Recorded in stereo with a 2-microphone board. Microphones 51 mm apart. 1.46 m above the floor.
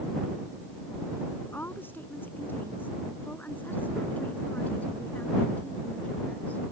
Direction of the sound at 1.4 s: 50° left (ahead or behind).